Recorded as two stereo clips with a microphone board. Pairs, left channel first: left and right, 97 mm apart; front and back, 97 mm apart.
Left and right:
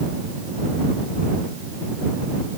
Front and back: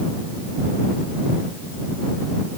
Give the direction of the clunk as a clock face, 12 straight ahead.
I don't hear a clunk.